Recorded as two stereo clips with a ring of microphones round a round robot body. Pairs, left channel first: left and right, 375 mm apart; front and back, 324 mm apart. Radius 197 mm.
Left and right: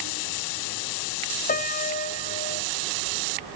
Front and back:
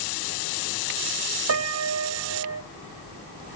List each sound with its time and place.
1.5 s a piano: 155° left, 1.4 m